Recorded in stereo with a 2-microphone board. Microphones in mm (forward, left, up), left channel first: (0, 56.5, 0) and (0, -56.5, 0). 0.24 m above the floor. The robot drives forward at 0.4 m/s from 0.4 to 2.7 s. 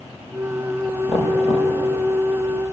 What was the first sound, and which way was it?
Knocking, 80° left.